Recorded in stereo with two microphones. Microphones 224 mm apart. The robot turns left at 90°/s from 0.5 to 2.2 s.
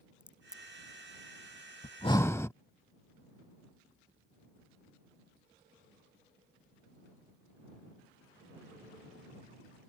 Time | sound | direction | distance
0.2 | a crack | 5° right (ahead or behind) | ?
1.8 | breathing | 45° left | ?